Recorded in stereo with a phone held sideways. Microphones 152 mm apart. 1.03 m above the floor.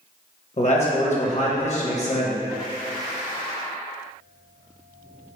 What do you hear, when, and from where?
0.6 s a man speaking: 50° left (ahead or behind), 0.9 m